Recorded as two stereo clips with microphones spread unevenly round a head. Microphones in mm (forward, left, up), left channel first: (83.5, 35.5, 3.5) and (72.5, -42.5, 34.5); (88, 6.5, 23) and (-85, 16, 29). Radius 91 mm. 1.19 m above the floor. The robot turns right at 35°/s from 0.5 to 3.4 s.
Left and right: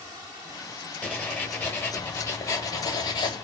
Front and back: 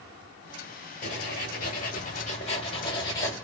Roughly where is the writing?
Ahead.